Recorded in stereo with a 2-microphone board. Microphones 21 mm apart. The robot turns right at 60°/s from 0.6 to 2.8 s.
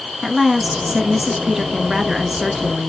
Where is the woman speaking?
15° right (ahead or behind), 1.4 m; by 2.9 s 10° right (ahead or behind), 1.4 m.